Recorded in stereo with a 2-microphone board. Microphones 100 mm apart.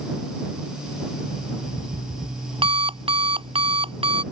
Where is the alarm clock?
65° right (ahead or behind).